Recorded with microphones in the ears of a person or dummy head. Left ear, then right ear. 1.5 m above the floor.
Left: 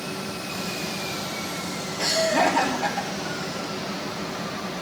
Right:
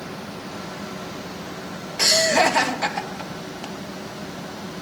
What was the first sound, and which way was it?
Laughter, 60° right (ahead or behind).